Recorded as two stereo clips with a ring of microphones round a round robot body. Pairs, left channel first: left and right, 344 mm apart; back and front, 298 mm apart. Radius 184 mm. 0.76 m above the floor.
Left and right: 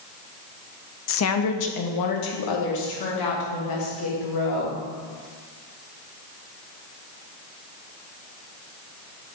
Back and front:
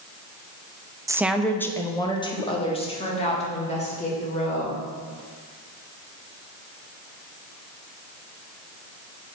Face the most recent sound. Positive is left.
turn(degrees=115)